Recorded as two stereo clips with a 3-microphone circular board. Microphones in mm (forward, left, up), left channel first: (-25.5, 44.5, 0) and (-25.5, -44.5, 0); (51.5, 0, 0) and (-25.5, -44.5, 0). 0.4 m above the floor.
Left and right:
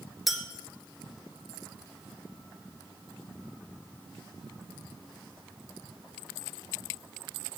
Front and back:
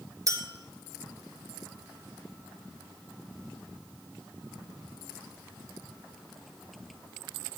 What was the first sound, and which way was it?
A clink, 175° right.